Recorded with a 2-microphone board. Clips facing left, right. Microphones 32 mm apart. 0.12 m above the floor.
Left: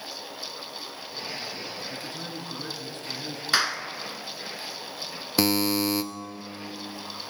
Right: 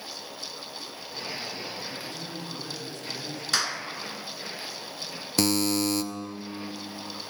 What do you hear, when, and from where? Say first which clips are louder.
1.9 s a man speaking: left 1 dB; 40° left (ahead or behind), 5.5 m
3.5 s a clap: left 4 dB; 20° left (ahead or behind), 1.1 m
5.4 s a buzzer: left 1 dB; 15° left (ahead or behind), 0.8 m